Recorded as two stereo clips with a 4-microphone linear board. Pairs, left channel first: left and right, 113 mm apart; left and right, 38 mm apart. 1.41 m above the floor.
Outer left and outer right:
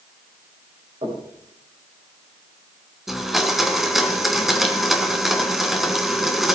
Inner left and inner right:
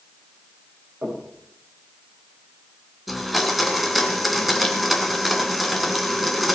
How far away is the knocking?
About 7.5 m.